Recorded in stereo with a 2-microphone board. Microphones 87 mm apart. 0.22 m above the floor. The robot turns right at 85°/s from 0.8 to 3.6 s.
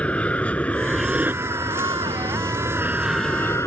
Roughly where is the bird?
No bird in this recording.